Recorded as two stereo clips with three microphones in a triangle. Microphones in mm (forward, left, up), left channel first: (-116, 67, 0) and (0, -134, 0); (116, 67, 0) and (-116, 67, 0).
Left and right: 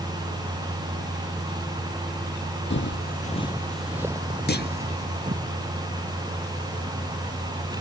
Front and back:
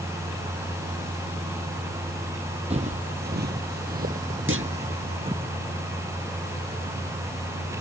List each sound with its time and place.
2.7 s footsteps: 125° left; by 5.5 s 115° right
4.5 s a clunk: 160° left